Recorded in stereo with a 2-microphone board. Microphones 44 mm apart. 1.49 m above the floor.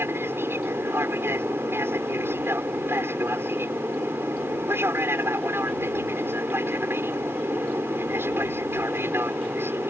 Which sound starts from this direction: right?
An aircraft, at 0.0 s.